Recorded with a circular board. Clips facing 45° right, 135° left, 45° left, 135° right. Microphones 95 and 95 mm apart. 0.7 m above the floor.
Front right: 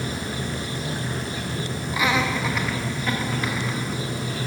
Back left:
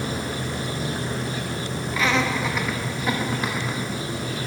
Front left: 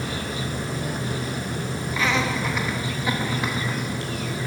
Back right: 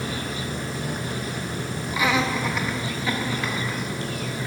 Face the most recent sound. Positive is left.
turn(degrees=90)